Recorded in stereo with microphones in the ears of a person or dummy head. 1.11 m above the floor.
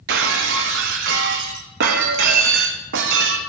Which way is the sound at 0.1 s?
55° right (ahead or behind).